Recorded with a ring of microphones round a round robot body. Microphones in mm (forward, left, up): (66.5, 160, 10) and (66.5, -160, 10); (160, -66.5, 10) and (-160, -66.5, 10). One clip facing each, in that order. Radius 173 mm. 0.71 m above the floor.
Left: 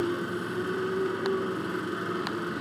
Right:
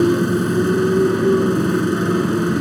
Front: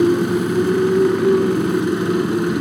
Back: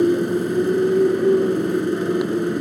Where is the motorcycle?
70° right.